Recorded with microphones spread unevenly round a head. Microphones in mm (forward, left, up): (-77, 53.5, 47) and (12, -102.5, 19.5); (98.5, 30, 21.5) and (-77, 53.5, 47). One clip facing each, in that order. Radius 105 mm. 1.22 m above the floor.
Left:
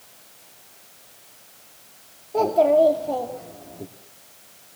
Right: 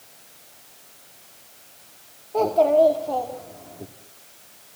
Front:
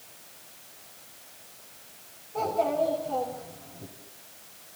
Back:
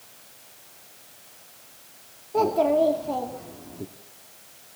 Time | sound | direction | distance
2.3 | a child speaking | 165° right | 2.5 m